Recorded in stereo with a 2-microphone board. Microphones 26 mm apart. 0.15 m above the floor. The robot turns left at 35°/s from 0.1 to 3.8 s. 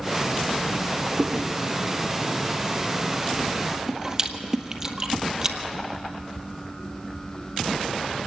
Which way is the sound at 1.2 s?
60° right (ahead or behind).